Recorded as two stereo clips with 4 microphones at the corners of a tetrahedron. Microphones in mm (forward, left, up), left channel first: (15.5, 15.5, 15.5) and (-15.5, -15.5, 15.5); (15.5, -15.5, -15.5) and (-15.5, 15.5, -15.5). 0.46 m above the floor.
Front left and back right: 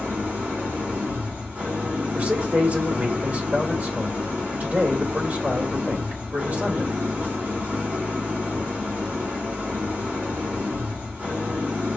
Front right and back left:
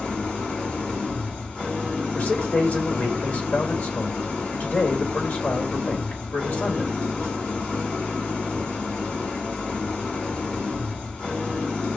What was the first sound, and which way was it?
An engine running, 115° right.